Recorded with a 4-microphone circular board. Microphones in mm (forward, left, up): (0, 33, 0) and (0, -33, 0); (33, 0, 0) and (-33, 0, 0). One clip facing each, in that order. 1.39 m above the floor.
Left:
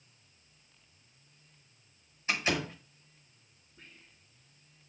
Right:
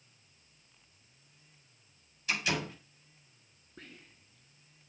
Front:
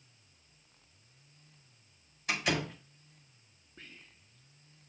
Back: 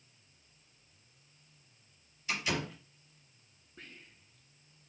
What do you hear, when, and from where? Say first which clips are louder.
2.3 s a door slam: left 2 dB, front 3 dB; 30° left, 5 m
3.8 s whispering: right 5 dB, back 1 dB; 90° right, 0.9 m